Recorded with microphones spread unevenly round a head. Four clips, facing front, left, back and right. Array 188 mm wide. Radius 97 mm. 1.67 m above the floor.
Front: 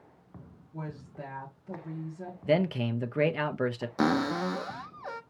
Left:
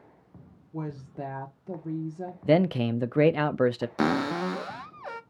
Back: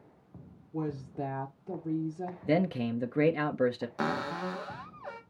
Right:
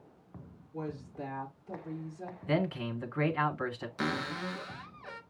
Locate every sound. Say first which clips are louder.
0.7 s a woman speaking: left 3 dB, back 6 dB; 120° left, 1.3 m
2.5 s a man speaking: left 9 dB, front 2 dB; 90° left, 0.7 m
4.0 s a cupboard door: left 9 dB, front 8 dB; 45° left, 0.5 m